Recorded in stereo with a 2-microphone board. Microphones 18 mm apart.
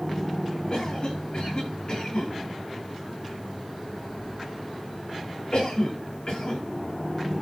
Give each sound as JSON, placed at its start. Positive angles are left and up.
{"t": 0.7, "sound": "a cough", "side_deg": 65, "distance_m": 8.0}